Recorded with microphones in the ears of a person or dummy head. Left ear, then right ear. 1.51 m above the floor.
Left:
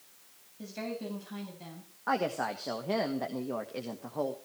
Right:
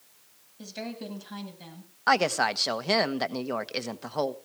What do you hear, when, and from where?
0.6 s a woman speaking: 40° right (ahead or behind), 8 m; by 1.9 s 30° right (ahead or behind), 8.5 m
2.1 s a woman speaking: 75° right (ahead or behind), 1.2 m